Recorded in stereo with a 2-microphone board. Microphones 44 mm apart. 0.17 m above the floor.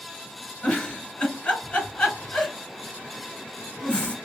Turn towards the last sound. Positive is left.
turn(degrees=25)  # may be behind; listen again after turning